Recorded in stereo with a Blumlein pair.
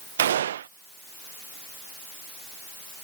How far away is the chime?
No chime in this recording.